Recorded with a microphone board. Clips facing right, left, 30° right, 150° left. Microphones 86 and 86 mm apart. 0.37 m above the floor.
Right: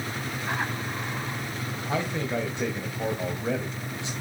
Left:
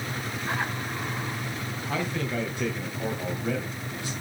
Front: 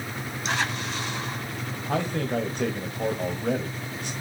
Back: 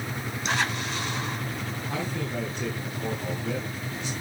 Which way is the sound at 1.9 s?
25° right.